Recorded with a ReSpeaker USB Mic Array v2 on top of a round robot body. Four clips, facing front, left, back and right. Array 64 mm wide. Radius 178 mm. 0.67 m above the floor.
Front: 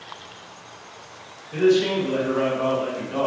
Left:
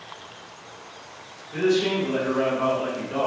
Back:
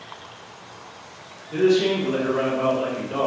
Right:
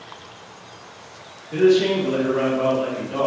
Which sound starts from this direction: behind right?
A man speaking, at 1.5 s.